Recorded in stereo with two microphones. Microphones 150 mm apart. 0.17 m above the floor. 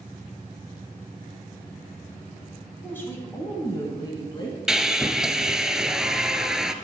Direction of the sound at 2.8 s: 10° left (ahead or behind).